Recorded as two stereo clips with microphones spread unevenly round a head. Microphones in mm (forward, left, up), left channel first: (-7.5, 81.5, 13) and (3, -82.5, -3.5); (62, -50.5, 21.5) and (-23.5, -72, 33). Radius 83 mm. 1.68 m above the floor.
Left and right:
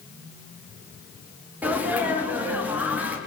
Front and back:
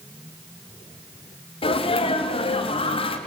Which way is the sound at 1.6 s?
5° right.